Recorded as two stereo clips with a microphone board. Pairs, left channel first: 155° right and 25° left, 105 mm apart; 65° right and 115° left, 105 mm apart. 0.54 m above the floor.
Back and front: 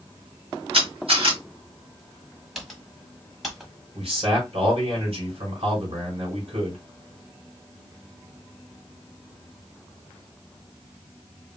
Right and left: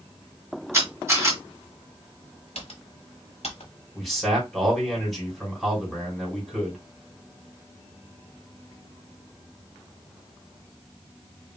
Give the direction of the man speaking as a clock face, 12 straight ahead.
11 o'clock.